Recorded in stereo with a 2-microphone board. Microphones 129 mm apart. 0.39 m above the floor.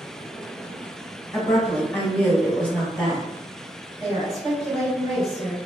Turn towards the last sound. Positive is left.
turn(degrees=-30)  # may be behind; listen again after turning